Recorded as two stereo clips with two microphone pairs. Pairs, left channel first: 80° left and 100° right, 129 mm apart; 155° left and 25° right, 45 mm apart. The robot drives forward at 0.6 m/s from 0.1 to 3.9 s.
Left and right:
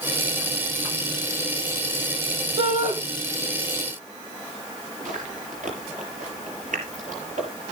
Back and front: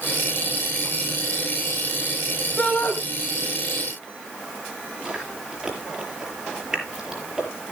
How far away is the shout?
About 4 m.